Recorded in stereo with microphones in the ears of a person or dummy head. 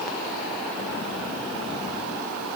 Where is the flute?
No flute in this recording.